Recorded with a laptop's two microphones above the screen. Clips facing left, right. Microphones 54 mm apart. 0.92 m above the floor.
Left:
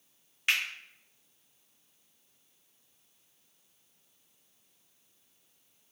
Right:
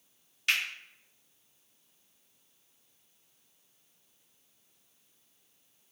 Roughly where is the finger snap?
Left.